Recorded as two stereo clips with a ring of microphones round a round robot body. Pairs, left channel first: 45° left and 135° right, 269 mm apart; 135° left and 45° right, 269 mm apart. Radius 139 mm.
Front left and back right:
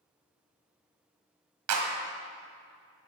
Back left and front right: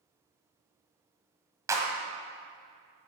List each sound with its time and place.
1.7 s a clap: 125° right, 1.9 m